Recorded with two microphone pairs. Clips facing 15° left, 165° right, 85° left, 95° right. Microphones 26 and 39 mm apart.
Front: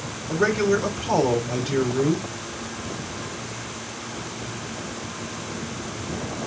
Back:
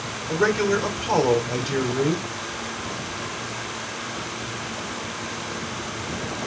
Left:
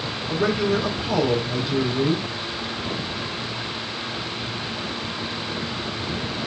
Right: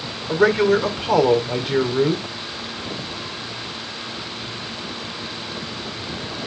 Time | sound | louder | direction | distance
0.3 | a man speaking | even, right 6 dB | 85° right | 3 m